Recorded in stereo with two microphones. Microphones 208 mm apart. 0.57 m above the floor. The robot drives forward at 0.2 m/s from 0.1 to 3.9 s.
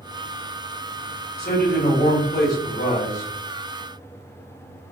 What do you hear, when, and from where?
1.4 s a man speaking: 45° left (ahead or behind), 1.2 m; by 3.3 s 40° left (ahead or behind), 1.2 m